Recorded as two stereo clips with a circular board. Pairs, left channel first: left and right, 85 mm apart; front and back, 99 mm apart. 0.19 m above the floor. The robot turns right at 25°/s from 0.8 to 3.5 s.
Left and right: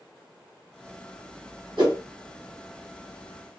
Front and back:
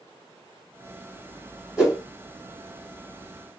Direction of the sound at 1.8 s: 100° right.